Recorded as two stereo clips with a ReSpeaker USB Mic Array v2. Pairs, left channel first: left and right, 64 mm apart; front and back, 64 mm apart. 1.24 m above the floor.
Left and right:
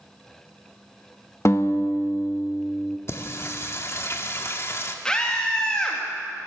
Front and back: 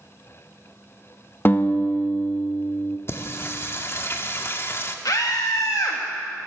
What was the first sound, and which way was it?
A guitar, 55° left.